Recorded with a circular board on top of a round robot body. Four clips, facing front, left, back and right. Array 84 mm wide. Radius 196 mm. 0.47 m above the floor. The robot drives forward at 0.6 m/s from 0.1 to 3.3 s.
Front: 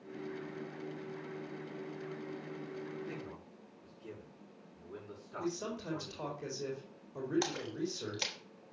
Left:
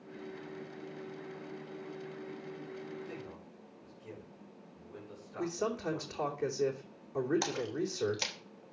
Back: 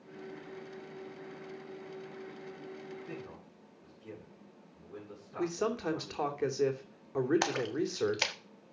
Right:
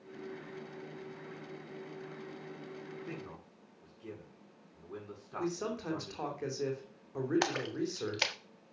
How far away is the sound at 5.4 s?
About 3 m.